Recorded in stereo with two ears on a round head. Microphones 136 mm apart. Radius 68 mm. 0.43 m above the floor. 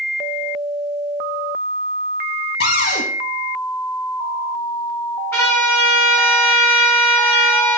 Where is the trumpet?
15° left (ahead or behind), 4.5 m.